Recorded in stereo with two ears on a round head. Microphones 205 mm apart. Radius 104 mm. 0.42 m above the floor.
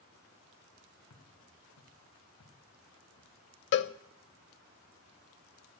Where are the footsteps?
85° left, 4.5 m; by 3.3 s 80° left, 7 m.